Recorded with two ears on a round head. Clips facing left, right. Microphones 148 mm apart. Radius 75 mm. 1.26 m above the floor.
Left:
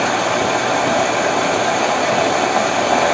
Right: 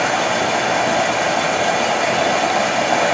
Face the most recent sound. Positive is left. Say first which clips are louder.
# left 1 dB
turn(degrees=0)  # may be behind; listen again after turning